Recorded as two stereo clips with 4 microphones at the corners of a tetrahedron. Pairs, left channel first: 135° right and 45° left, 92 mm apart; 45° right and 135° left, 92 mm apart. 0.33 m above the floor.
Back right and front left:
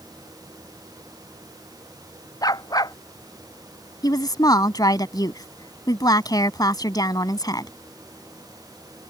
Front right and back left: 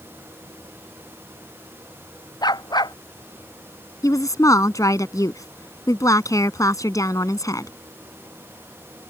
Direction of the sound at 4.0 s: 95° right.